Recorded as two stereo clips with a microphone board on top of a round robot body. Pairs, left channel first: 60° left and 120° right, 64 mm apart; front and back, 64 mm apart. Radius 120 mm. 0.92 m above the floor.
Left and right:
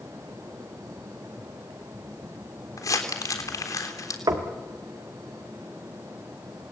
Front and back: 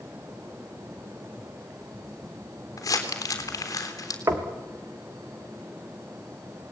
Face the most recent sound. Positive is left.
turn(degrees=-135)